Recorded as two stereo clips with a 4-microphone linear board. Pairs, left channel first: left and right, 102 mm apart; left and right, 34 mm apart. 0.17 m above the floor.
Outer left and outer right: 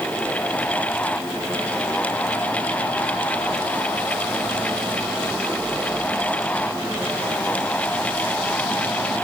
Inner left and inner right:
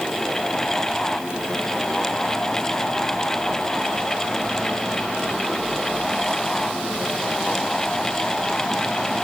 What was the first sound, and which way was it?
Only background noise.